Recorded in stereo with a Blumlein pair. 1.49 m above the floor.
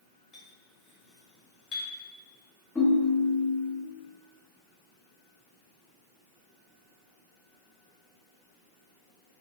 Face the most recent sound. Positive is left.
turn(degrees=10)